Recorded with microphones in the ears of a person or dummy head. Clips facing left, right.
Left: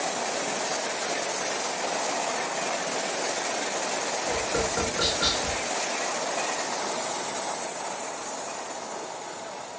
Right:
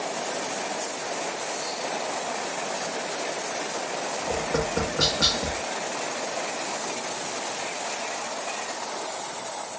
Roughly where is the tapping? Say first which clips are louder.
Right 2 dB; right.